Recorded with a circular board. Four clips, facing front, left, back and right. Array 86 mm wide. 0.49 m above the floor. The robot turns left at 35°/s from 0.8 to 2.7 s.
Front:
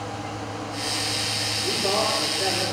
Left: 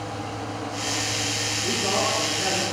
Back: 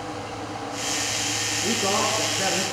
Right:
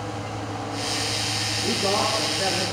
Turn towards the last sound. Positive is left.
turn(degrees=160)